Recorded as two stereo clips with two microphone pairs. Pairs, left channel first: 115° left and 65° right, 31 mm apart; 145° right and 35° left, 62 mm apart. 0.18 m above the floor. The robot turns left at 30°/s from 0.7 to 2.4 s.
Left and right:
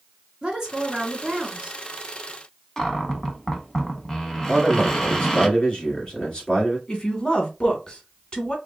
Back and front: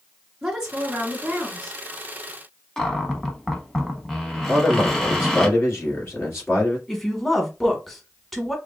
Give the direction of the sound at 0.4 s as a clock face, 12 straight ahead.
1 o'clock.